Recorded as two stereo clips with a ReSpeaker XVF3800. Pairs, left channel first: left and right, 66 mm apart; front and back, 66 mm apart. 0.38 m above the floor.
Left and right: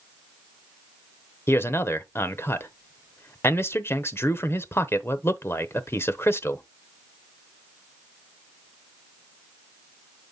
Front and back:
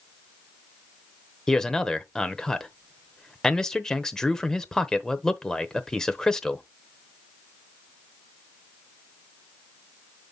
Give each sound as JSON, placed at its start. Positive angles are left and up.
{"t": 1.5, "sound": "a man speaking", "azimuth_deg": 75, "distance_m": 0.9}